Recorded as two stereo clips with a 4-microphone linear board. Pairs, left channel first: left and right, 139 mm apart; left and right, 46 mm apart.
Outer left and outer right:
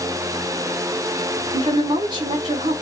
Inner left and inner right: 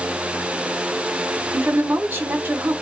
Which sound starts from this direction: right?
A woman speaking, at 1.5 s.